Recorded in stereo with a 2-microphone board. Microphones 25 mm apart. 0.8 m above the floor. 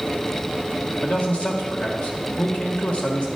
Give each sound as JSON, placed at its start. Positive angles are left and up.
{"t": 1.0, "sound": "a man speaking", "side_deg": 65, "distance_m": 1.4}